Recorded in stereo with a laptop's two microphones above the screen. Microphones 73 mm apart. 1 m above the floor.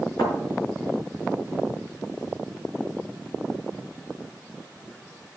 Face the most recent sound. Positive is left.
turn(degrees=85)